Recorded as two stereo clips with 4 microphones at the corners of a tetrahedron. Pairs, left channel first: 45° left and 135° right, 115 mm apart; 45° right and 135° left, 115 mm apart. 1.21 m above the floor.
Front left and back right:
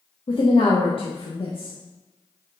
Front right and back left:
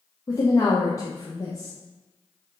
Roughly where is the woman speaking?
Ahead.